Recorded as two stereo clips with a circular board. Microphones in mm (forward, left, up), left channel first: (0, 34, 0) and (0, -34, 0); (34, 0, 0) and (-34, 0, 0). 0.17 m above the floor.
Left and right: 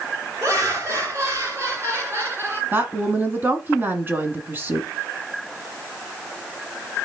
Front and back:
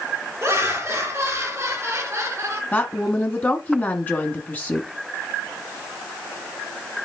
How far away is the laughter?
About 4 m.